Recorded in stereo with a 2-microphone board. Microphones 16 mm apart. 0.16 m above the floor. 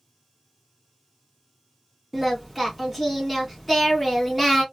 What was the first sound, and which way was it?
Singing, centre (ahead or behind).